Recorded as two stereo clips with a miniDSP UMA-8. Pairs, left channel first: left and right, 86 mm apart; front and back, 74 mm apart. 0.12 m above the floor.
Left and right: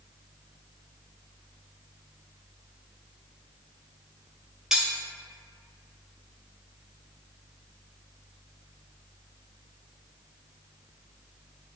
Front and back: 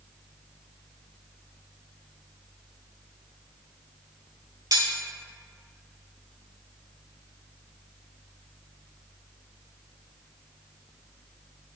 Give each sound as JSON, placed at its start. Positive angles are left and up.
{"t": 4.7, "sound": "cutlery clinking", "azimuth_deg": -175, "distance_m": 1.6}